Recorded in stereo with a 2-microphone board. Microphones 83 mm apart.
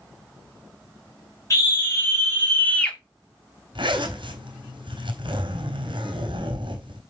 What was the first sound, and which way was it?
A scream, 40° left (ahead or behind).